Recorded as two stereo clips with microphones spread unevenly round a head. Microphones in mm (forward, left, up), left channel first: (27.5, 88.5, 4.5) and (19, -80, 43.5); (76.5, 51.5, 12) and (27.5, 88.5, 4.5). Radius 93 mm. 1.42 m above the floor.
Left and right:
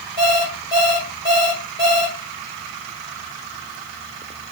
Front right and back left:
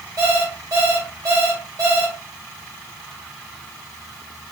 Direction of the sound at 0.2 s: 160° left.